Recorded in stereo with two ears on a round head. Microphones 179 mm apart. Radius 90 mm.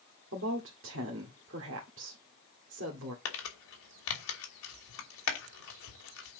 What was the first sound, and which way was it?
A woman speaking, 65° right (ahead or behind).